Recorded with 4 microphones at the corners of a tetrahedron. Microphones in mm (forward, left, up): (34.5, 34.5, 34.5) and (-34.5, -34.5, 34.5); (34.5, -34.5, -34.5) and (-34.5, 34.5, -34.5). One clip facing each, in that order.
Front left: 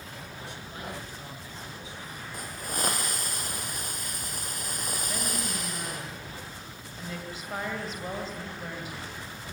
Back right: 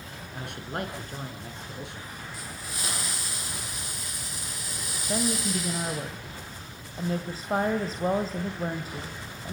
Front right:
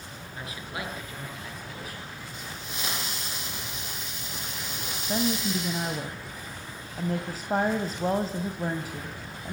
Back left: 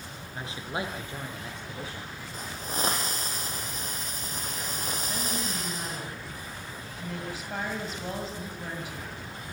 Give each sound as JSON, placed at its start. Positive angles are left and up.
{"t": 0.3, "sound": "a man speaking", "azimuth_deg": -165, "distance_m": 5.5}
{"t": 2.3, "sound": "a hiss", "azimuth_deg": 85, "distance_m": 4.5}
{"t": 5.1, "sound": "a woman speaking", "azimuth_deg": -85, "distance_m": 2.5}